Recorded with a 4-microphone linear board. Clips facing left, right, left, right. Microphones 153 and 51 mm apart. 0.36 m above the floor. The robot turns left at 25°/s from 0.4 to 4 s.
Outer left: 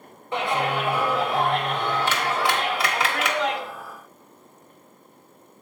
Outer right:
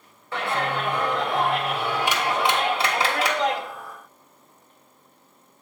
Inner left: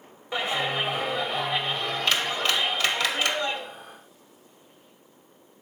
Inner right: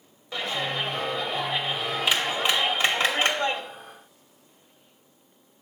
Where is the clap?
25° left, 1.2 m; by 3.6 s 55° right, 1.2 m.